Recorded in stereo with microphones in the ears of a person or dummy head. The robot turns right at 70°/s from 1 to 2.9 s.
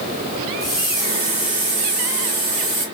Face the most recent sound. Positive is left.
turn(degrees=-35)